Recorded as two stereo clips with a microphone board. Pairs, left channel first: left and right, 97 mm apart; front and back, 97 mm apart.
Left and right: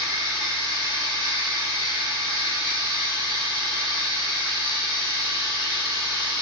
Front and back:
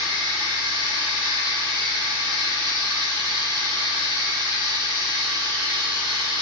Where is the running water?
140° right, 1.3 m.